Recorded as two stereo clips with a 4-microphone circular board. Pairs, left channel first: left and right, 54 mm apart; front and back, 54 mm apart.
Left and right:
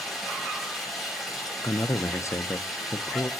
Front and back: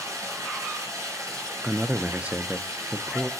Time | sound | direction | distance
0.0 | running water | straight behind | 6.5 m
1.6 | a man speaking | 115° left | 0.5 m